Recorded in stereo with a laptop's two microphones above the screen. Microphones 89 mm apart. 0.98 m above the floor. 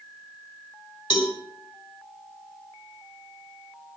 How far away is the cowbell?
About 3.5 m.